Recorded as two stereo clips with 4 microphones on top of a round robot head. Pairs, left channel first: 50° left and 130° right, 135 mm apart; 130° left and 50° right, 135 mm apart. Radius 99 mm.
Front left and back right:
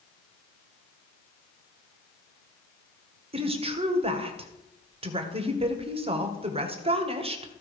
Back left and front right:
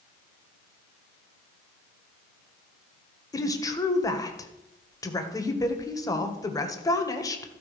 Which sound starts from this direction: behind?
A woman speaking, at 3.3 s.